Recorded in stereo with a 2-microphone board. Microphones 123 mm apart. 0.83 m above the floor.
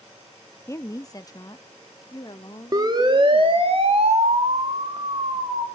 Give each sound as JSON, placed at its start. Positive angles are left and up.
{"t": 0.7, "sound": "a woman speaking", "side_deg": 25, "distance_m": 0.7}
{"t": 2.7, "sound": "a siren", "side_deg": -30, "distance_m": 2.5}